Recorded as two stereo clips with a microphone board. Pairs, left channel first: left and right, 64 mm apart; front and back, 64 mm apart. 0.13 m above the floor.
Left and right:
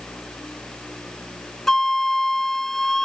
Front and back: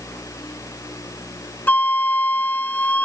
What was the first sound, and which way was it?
A flute, 15° left.